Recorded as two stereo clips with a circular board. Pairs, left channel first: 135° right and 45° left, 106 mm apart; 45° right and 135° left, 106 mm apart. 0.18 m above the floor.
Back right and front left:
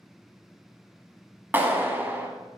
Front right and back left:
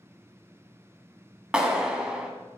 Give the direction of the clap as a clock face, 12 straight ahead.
10 o'clock.